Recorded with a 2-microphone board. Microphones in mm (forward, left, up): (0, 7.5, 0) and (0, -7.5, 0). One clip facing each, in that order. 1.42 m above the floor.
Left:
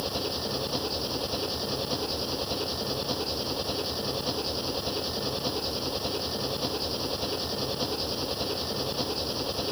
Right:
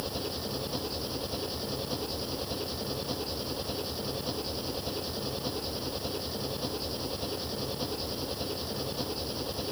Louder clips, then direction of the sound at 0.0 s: Left 4 dB; 15° left (ahead or behind).